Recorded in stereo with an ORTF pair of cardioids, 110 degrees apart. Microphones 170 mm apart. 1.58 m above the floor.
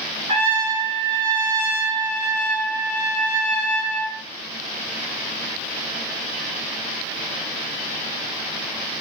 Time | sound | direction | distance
0.3 | a trumpet | 35° right | 1.1 m